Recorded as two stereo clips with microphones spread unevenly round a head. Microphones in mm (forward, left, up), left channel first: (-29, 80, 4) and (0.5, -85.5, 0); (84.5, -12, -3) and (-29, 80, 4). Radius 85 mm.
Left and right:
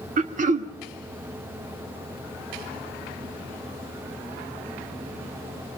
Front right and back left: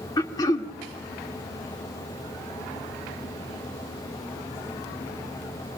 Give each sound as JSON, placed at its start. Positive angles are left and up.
{"t": 0.2, "sound": "throat clearing", "azimuth_deg": -100, "distance_m": 0.8}